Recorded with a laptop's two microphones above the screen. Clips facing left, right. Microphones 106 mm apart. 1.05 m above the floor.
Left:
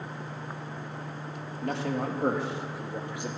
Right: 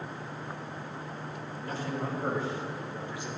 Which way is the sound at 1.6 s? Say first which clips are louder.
Left 5 dB; 70° left (ahead or behind).